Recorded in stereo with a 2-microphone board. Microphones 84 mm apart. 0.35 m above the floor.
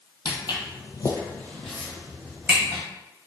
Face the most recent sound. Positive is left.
turn(degrees=-15)  # may be behind; listen again after turning